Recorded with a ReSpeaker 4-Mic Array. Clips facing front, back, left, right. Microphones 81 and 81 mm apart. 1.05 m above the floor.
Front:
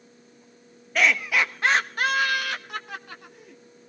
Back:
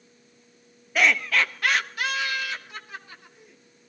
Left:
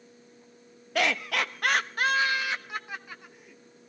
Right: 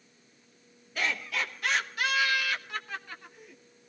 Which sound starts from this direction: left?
Laughter, at 0.9 s.